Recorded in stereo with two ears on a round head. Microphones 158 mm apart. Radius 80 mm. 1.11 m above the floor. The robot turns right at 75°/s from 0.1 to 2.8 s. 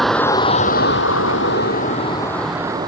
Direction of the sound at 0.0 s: Straight ahead.